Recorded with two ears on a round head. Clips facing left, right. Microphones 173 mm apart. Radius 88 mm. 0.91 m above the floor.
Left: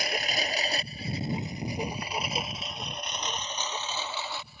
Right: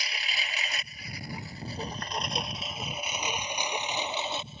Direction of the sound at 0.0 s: 45° left (ahead or behind).